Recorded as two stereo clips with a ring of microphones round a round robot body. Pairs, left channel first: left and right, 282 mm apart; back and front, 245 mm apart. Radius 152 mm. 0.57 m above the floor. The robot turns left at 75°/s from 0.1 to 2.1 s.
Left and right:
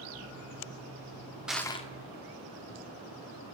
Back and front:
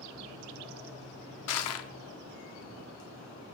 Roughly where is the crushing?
Behind.